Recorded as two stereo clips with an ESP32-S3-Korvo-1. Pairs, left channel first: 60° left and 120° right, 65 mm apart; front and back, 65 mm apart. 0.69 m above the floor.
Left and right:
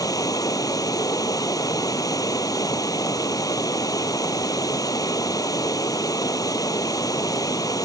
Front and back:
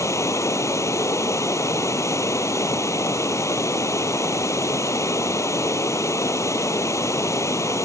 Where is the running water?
40° left.